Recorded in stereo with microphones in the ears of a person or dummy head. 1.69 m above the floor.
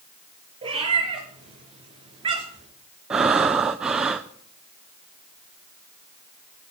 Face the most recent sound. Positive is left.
turn(degrees=-10)  # may be behind; listen again after turning